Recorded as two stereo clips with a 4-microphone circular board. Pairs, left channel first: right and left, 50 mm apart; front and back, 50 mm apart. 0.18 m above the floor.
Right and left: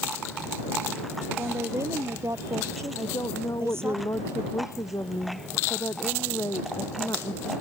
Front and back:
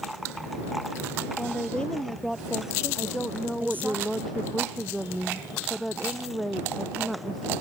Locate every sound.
1.4 s a woman speaking: 65° left; by 4.0 s 130° left
3.0 s a woman speaking: 90° right